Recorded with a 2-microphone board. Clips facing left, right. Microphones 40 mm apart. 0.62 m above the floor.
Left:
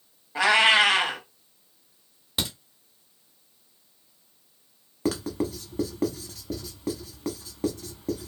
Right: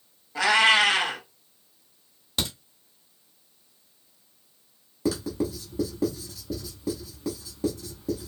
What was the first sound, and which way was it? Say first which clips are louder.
A cat meowing: left 1 dB; 25° left (ahead or behind).